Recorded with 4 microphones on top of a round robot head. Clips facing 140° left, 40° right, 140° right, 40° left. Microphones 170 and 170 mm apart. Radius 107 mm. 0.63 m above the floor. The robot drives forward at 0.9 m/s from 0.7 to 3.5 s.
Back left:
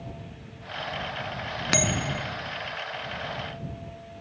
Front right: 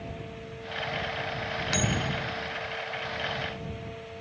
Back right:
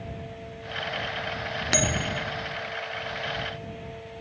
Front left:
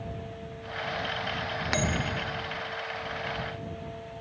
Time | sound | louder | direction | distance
1.7 | a bell | back left 3 dB, back right 3 dB | 165° left | ?